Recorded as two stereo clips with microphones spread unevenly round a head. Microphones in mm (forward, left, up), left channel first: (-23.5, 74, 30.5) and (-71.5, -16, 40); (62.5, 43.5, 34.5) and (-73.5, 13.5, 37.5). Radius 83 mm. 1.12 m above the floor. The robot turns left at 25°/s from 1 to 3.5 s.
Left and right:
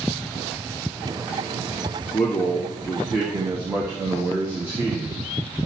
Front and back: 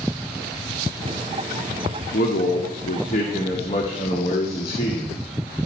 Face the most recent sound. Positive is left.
turn(degrees=-45)